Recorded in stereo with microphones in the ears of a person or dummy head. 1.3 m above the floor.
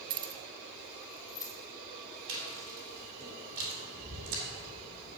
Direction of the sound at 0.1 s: 25° right (ahead or behind).